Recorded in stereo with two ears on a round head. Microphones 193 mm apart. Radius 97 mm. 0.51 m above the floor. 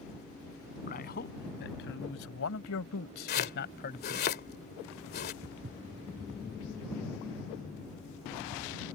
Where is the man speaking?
45° left (ahead or behind); by 4.3 s 35° left (ahead or behind).